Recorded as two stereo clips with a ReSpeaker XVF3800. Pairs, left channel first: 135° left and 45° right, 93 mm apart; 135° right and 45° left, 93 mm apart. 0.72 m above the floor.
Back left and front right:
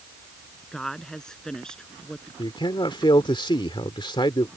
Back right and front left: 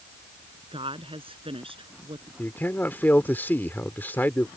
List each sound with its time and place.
0.7 s a woman speaking: 50° left; by 2.3 s 55° left
2.4 s a man speaking: 155° left